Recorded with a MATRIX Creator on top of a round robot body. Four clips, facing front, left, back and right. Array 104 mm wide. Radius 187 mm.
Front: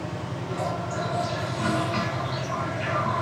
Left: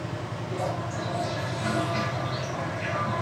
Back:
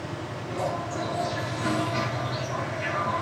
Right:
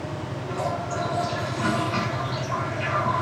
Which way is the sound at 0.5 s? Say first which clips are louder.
Right 3 dB, even; 65° right.